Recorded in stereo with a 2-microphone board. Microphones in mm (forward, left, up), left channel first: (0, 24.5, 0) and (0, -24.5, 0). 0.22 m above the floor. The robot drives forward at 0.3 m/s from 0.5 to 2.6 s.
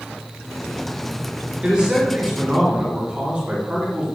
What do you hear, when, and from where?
1.6 s a man speaking: 20° right (ahead or behind), 3.5 m